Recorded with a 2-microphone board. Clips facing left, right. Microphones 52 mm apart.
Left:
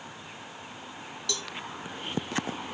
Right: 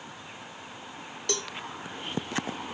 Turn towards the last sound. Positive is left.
turn(degrees=-55)  # may be behind; listen again after turning